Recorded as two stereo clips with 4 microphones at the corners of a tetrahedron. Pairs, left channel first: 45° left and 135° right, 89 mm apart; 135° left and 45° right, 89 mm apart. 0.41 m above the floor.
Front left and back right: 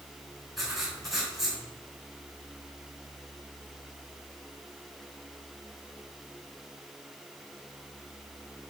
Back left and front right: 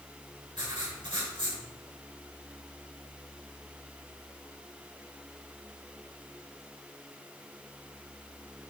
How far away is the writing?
About 3.5 m.